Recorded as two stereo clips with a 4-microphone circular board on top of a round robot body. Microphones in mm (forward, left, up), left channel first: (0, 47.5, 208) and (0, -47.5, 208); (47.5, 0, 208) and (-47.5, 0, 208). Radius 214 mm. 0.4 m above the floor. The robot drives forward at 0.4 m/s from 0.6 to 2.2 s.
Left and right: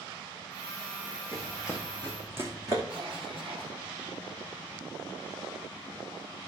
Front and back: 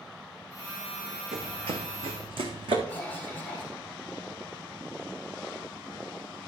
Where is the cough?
70° right, 3 m.